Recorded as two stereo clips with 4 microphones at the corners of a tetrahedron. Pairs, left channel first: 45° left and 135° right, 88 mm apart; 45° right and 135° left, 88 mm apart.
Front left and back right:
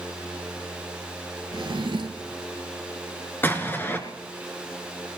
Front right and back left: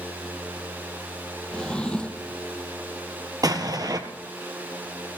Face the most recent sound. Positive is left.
turn(degrees=105)